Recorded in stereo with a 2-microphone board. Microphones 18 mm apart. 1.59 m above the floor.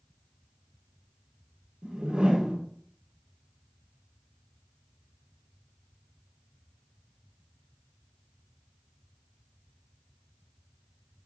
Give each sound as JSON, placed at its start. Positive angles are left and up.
{"t": 1.8, "sound": "a whoosh", "side_deg": -75, "distance_m": 2.0}